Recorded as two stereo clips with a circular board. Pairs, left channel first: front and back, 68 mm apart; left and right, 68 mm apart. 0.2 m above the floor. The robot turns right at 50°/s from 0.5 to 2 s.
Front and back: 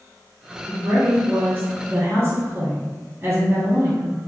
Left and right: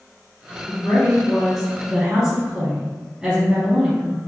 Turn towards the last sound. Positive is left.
turn(degrees=-160)